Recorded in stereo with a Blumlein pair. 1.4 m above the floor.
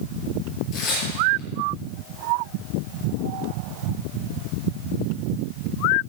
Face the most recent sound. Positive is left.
turn(degrees=35)